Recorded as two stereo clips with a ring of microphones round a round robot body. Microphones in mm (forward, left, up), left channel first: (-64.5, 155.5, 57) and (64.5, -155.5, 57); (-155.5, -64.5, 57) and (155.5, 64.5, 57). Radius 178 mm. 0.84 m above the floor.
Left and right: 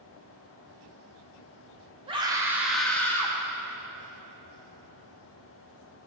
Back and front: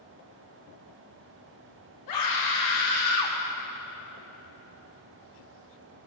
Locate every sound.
2.1 s a scream: 140° right, 1.8 m; by 3.4 s 170° right, 2 m